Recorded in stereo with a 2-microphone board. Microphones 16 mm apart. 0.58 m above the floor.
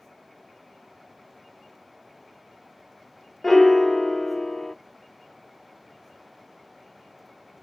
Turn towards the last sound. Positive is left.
turn(degrees=25)  # may be behind; listen again after turning